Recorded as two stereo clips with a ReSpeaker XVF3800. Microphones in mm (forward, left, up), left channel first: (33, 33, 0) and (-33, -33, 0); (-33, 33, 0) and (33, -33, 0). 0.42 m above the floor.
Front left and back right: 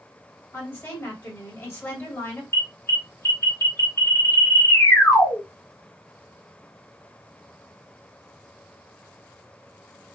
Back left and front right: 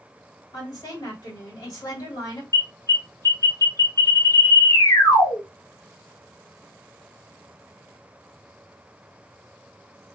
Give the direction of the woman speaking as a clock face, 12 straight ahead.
9 o'clock.